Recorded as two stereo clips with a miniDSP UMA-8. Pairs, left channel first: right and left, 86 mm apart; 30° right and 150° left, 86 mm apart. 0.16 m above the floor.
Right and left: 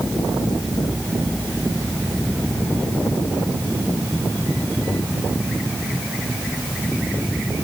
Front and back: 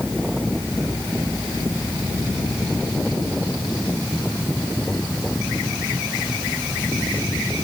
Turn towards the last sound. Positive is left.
No sound to turn to.